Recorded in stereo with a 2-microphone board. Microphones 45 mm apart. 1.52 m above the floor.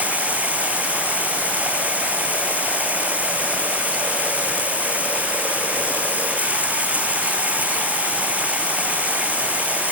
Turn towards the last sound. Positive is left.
turn(degrees=-35)  # may be behind; listen again after turning